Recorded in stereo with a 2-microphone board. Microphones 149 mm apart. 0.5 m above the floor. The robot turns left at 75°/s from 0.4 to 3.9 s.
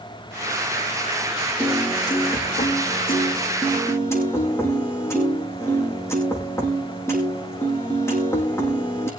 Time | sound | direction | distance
1.6 | a piano | 170° right | 6.5 m